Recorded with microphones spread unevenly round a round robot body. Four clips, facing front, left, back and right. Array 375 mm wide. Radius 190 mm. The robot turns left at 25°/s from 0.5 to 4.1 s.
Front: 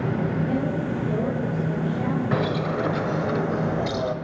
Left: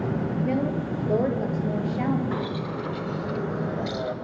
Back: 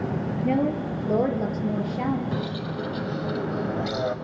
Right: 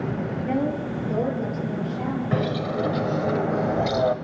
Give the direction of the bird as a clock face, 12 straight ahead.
2 o'clock.